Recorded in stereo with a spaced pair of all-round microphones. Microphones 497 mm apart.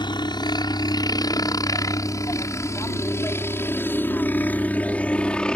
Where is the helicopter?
10° left (ahead or behind); by 5.6 s centre (ahead or behind).